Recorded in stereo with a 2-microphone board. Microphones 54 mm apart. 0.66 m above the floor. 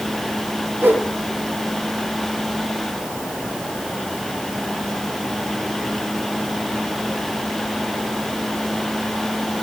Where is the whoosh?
40° right (ahead or behind), 5 m.